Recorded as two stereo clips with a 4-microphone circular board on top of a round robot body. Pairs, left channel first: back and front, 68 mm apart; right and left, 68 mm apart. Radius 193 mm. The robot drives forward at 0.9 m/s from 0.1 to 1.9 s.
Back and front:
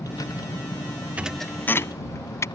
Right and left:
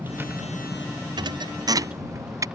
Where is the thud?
75° left; by 2.5 s 130° left.